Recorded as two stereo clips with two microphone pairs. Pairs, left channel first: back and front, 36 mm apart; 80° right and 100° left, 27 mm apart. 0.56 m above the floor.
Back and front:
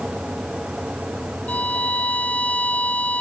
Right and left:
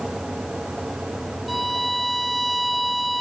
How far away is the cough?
I don't hear a cough.